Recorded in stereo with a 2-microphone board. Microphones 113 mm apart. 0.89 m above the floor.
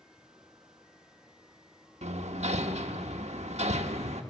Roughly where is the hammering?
Right.